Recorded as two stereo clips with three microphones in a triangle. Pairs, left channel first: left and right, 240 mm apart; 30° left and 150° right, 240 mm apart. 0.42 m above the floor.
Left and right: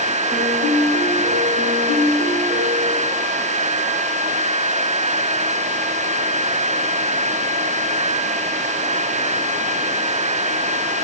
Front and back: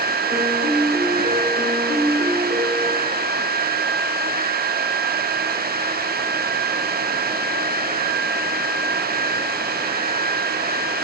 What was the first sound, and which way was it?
A piano, 115° right.